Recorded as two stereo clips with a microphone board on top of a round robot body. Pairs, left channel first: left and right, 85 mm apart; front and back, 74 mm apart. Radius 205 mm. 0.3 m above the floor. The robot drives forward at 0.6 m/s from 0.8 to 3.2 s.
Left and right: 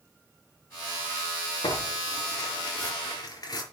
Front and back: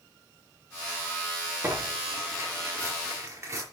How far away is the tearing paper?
About 4.5 m.